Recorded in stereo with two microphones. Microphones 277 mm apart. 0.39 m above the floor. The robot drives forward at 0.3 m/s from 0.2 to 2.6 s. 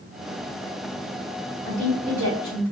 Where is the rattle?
No rattle in this recording.